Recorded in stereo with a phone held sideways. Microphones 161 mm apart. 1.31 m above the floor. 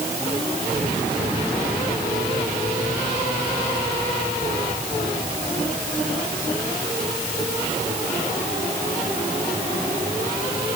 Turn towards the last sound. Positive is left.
No sound to turn to.